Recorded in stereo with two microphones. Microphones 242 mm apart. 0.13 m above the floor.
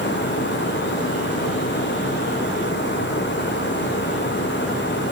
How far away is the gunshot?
No gunshot in this recording.